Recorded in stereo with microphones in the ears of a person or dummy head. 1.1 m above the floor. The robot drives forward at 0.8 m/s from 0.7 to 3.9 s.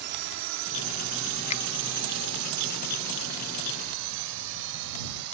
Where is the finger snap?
35° left (ahead or behind).